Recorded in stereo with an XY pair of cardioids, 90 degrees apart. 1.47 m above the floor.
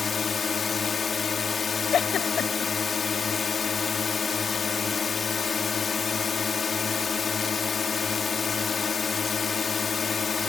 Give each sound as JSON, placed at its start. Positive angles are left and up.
{"t": 0.0, "sound": "a drone", "azimuth_deg": 45}
{"t": 1.9, "sound": "a giggle", "azimuth_deg": 65}